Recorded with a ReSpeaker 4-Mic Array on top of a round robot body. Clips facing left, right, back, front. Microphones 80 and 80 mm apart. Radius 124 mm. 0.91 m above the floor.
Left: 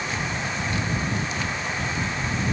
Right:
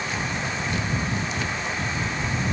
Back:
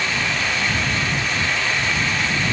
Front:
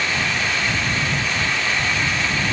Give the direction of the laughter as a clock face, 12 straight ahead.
I don't hear laughter.